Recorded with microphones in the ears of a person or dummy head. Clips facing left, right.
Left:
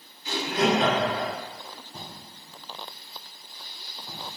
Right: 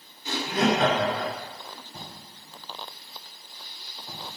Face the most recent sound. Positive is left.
turn(degrees=-40)  # may be behind; listen again after turning